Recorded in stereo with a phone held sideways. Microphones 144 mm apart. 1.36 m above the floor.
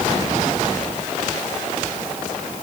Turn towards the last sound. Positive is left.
No sound to turn to.